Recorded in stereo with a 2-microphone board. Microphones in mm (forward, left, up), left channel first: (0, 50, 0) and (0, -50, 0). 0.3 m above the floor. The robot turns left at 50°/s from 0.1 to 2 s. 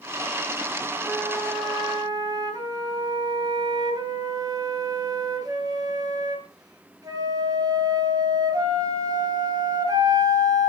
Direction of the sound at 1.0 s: 5° left.